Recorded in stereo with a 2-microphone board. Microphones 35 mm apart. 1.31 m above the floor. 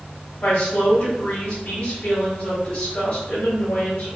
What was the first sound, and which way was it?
A woman speaking, 60° left (ahead or behind).